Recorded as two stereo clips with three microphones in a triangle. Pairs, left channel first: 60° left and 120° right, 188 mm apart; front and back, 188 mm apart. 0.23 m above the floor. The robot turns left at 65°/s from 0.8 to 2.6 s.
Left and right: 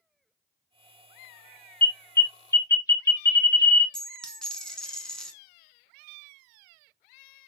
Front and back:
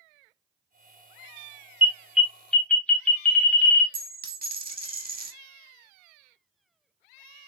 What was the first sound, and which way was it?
An alarm, 120° left.